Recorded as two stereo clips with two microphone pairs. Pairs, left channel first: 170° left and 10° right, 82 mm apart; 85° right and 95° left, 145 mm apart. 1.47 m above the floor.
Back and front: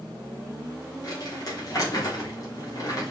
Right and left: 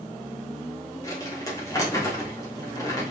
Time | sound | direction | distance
1.0 | crumpling | 150° right | 4 m